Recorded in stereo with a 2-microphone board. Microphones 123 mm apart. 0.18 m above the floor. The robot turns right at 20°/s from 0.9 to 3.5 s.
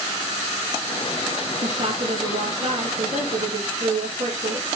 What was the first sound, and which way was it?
A woman speaking, 105° right.